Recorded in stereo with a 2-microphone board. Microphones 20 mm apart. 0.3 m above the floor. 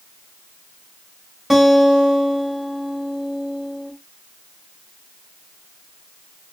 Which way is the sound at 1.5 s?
10° right (ahead or behind).